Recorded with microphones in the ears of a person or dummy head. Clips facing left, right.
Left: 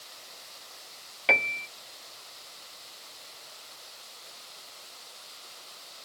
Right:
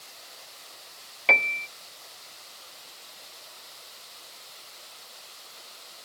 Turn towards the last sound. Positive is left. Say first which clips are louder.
# right 1 dB
turn(degrees=0)  # may be behind; listen again after turning